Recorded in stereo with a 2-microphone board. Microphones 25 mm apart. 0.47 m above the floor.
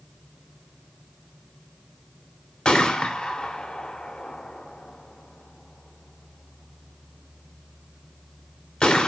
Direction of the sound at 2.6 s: 35° left (ahead or behind).